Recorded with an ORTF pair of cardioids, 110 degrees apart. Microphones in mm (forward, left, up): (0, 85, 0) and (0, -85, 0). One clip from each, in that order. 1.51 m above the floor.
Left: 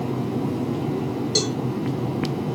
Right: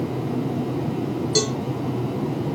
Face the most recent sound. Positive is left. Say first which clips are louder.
# right 1 dB
turn(degrees=0)